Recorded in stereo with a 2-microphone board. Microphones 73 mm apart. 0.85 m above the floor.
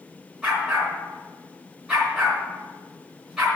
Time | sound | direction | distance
0.4 | a dog barking | 5° right (ahead or behind) | 4 m